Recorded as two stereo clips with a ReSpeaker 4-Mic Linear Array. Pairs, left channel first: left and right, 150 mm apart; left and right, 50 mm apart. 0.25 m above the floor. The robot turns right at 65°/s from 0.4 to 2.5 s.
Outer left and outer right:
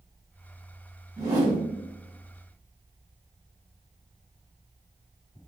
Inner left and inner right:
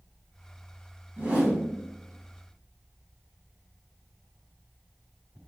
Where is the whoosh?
25° right (ahead or behind), 1.7 m.